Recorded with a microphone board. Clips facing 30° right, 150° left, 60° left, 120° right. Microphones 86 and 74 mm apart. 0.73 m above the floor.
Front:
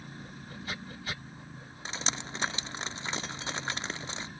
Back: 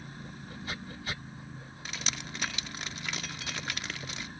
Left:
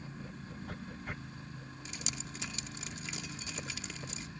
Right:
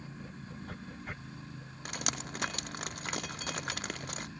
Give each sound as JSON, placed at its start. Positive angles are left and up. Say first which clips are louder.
{"t": 1.9, "sound": "dripping", "louder": "front 3 dB, right 8 dB", "azimuth_deg": -90, "distance_m": 0.5}